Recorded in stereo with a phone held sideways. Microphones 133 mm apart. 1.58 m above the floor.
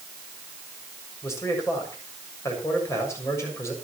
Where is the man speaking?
20° left (ahead or behind), 7 m.